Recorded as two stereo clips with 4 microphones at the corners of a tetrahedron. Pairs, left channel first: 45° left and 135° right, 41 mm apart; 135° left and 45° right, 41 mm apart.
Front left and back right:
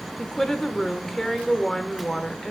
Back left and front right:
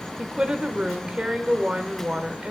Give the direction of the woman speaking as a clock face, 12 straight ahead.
1 o'clock.